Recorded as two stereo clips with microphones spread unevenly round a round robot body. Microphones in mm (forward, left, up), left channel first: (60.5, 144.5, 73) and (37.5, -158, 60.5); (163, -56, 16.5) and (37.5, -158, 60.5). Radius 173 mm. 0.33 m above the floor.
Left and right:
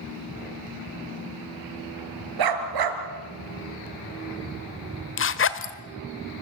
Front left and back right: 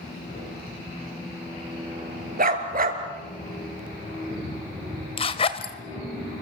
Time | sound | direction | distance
2.4 | a dog barking | 105° right | 2.5 m
5.2 | a zipper | 50° left | 1.4 m